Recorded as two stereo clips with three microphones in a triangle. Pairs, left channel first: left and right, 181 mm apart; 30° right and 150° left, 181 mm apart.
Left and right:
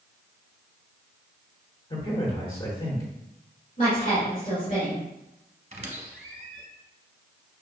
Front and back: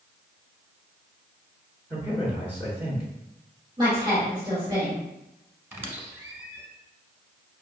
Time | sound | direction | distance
1.9 | a man speaking | 85° left | 1.1 m
3.8 | a woman speaking | 95° left | 1.6 m
5.7 | a squeak | 135° right | 0.8 m